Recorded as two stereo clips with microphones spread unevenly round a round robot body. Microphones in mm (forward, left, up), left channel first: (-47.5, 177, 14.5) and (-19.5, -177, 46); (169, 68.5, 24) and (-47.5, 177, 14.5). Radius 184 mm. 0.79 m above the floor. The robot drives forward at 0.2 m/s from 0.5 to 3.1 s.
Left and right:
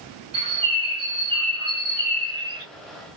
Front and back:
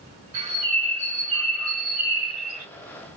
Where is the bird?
160° right, 1.6 m; by 2.6 s 165° right, 2 m.